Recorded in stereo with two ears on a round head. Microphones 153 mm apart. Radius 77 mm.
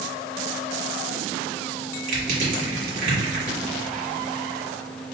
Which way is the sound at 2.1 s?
55° right (ahead or behind).